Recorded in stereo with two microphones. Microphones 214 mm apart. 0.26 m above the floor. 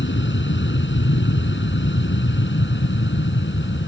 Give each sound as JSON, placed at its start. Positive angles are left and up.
{"t": 0.0, "sound": "an aircraft", "side_deg": 60}